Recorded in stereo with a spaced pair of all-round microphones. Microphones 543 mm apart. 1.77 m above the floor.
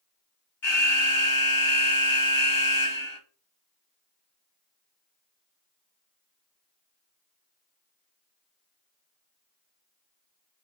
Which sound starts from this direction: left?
An alarm, at 0.6 s.